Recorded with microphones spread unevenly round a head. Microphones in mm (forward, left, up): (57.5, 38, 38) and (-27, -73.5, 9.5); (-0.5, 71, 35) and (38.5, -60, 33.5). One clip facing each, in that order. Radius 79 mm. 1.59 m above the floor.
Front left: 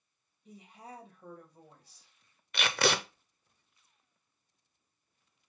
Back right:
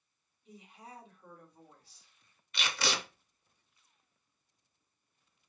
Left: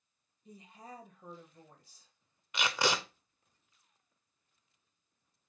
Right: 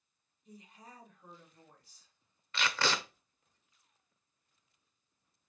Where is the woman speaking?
105° left, 2 m.